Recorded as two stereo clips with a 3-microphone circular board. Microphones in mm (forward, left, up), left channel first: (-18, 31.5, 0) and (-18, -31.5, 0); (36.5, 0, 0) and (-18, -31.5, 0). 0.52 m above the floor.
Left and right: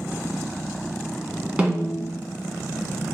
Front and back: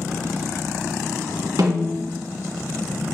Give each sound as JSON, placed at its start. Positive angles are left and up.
{"t": 1.6, "sound": "a snare drum", "azimuth_deg": -160, "distance_m": 1.0}